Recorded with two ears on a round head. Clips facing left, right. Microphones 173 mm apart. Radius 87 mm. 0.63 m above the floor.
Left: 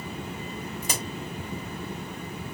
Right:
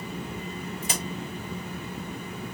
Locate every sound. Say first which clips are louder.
0.8 s a crack: right 1 dB; 35° left (ahead or behind), 2.5 m